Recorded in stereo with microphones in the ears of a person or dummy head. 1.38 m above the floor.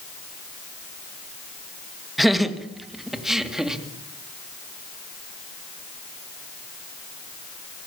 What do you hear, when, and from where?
2.2 s laughter: centre (ahead or behind), 1.9 m; by 3.8 s 5° right (ahead or behind), 2.5 m